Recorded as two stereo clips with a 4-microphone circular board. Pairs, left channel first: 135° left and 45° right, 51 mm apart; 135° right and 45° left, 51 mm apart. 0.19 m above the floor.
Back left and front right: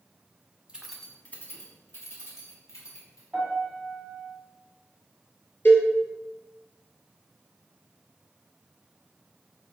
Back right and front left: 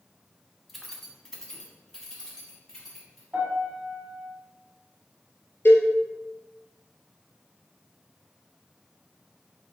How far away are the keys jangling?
About 0.7 m.